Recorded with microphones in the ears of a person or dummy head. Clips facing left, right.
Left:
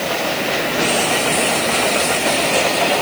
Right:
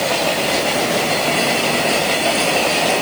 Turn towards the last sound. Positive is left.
No sound to turn to.